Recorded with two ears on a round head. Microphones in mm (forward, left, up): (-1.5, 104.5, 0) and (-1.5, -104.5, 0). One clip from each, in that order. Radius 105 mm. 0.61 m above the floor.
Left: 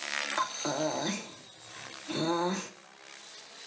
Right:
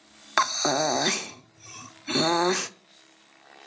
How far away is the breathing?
About 0.6 m.